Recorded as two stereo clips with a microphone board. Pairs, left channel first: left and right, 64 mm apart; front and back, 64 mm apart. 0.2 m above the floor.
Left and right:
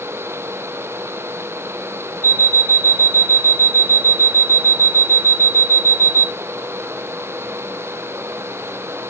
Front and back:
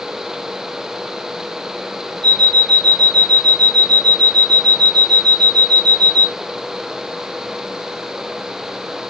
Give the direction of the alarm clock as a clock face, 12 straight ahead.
9 o'clock.